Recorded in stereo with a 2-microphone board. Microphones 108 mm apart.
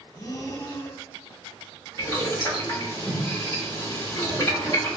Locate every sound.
0.1 s breathing: 30° left (ahead or behind), 0.5 m
2.0 s boiling: 40° left (ahead or behind), 1.4 m